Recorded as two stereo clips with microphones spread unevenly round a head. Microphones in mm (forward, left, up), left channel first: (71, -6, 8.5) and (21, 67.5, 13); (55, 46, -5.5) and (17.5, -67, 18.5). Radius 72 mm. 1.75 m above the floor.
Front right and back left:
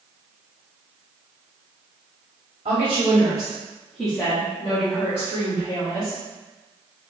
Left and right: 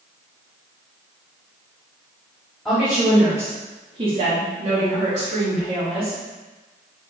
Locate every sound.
2.6 s a woman speaking: 165° left, 1.2 m; by 6.2 s 80° right, 1.7 m